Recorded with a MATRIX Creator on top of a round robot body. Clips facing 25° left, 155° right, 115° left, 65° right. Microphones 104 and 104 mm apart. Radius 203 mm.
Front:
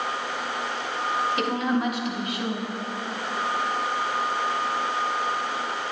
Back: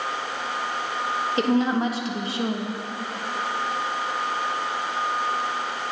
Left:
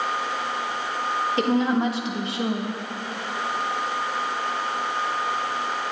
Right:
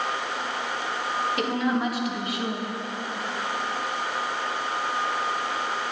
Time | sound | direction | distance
1.4 | a woman speaking | 160° left | 1.3 m